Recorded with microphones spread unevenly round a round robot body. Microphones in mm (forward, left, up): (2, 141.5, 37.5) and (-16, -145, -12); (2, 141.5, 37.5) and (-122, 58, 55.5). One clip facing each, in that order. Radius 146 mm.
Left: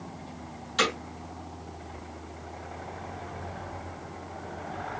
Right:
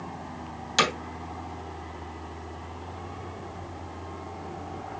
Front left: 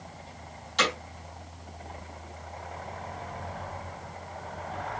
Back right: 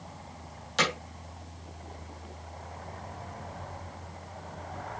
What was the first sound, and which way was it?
Hammering, 85° right.